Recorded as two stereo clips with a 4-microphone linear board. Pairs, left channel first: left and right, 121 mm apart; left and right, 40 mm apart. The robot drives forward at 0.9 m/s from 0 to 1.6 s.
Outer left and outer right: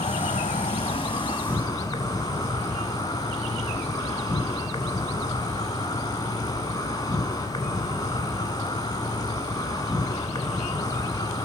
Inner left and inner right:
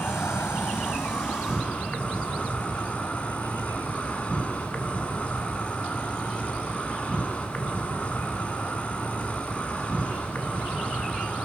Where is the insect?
60° left (ahead or behind), 0.8 m; by 11.5 s 30° left (ahead or behind), 1.3 m.